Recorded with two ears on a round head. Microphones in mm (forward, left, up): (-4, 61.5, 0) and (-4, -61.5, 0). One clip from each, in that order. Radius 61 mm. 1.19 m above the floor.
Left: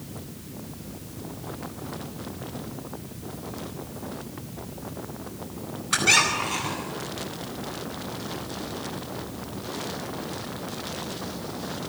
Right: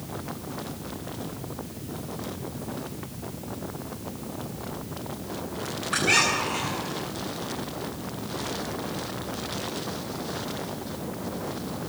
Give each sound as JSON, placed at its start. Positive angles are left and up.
{"t": 5.9, "sound": "a squeak", "side_deg": 85, "distance_m": 9.5}